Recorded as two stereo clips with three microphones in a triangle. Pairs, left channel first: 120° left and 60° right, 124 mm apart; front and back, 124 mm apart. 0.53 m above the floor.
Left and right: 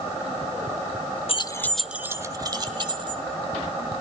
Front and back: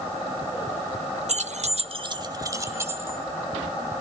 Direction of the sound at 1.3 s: 160° left.